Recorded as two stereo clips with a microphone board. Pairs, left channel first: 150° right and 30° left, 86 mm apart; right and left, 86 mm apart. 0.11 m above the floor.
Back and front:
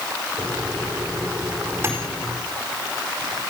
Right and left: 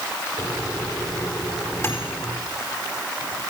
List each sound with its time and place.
0.4 s a microwave: 30° right, 4.5 m